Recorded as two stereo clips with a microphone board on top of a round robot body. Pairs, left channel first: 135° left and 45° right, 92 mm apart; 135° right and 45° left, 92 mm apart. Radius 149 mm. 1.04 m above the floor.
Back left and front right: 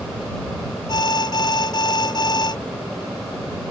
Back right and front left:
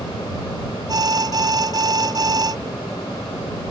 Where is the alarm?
95° left.